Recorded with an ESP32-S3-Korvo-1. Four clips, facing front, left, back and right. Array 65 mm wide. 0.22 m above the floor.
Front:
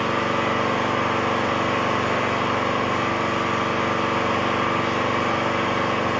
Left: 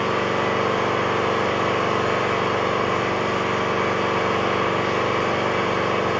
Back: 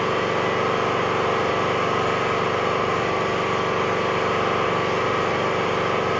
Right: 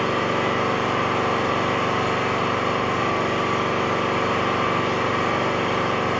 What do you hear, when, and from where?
0.0 s an engine running: 35° left, 1.9 m